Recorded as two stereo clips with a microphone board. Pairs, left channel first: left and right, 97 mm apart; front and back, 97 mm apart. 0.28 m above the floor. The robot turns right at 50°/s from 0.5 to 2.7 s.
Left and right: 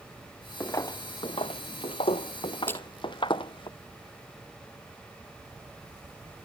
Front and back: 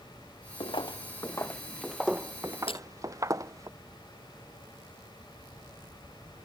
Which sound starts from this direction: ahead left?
Footsteps, at 0.6 s.